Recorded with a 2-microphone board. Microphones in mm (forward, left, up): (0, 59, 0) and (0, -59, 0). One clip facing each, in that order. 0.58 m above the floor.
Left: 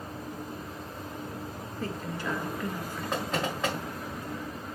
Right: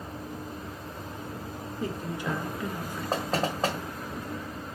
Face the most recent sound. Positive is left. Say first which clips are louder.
# right 3 dB
turn(degrees=-35)  # may be behind; listen again after turning